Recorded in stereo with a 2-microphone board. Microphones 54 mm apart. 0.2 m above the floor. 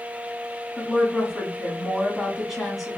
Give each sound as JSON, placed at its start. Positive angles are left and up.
{"t": 0.8, "sound": "a woman speaking", "side_deg": 0, "distance_m": 2.0}